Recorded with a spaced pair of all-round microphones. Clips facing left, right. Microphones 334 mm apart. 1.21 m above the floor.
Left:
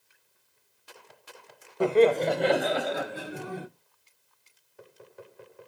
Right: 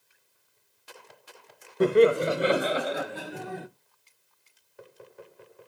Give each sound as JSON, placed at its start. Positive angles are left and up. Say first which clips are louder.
{"t": 1.8, "sound": "laughter", "louder": "right 1 dB", "side_deg": -25, "distance_m": 0.6}